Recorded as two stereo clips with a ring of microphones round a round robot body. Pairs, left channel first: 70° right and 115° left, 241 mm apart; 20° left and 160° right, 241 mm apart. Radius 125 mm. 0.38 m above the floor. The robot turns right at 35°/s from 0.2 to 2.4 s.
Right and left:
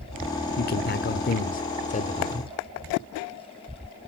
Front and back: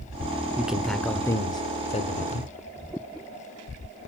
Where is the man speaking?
75° right, 1.0 m; by 2.5 s 10° right, 1.0 m.